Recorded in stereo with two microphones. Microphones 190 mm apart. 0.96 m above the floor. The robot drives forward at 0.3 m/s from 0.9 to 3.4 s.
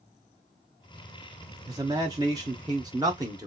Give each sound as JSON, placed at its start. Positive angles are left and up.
{"t": 1.7, "sound": "a man speaking", "side_deg": -20, "distance_m": 0.7}